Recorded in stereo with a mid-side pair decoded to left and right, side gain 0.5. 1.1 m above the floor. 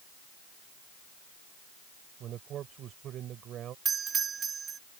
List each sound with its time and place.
2.2 s a man speaking: 60° right
3.9 s a doorbell: 40° right